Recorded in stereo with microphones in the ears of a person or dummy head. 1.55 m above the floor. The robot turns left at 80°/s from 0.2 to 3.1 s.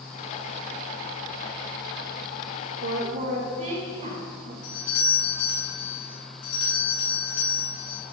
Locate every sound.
2.8 s a woman speaking: 70° right (ahead or behind), 2 m; by 4.5 s 45° right (ahead or behind), 2 m
4.6 s a doorbell: 85° left, 3.5 m